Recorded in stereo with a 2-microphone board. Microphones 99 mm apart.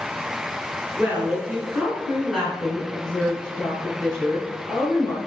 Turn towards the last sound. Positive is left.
turn(degrees=15)  # may be behind; listen again after turning